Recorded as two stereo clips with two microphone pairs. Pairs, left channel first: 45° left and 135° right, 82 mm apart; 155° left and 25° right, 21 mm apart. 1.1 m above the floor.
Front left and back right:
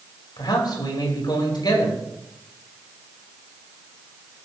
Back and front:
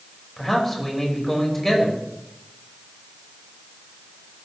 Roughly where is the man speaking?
Left.